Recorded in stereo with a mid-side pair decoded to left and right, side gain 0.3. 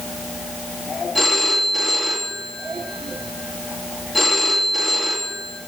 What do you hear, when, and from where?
1.1 s a phone ringing: 30° left, 2 m